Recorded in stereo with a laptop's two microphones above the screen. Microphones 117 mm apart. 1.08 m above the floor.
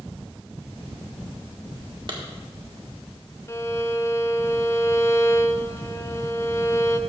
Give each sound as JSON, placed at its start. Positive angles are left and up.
{"t": 2.1, "sound": "a clap", "side_deg": -50, "distance_m": 1.7}
{"t": 3.5, "sound": "a violin", "side_deg": 25, "distance_m": 0.5}